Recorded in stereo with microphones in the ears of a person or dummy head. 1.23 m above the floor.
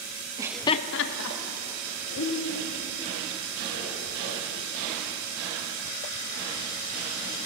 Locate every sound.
0.4 s laughter: 20° right (ahead or behind), 0.7 m; by 4.9 s 65° left (ahead or behind), 6.5 m